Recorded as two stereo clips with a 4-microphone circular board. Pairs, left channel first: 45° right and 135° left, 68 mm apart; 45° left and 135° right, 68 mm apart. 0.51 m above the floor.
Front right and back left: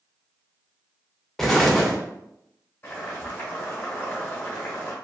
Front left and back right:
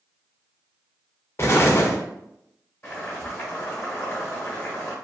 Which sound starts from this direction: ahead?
Boiling, at 2.8 s.